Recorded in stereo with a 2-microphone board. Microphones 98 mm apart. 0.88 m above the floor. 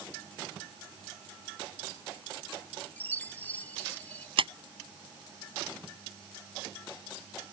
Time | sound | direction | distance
3.0 | a chime | 15° left (ahead or behind) | ?
4.4 | a clap | 65° right (ahead or behind) | ?